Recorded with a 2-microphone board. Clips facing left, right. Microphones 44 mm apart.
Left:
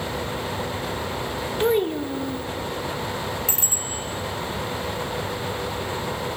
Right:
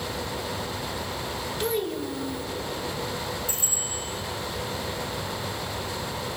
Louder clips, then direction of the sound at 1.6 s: Left 7 dB; 30° left (ahead or behind).